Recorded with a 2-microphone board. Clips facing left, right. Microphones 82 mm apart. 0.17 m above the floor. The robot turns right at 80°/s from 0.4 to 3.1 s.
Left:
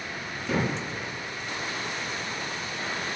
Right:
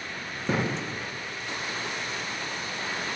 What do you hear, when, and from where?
0.5 s a thud: 35° right (ahead or behind), 1.0 m; by 0.7 s 50° right (ahead or behind), 1.0 m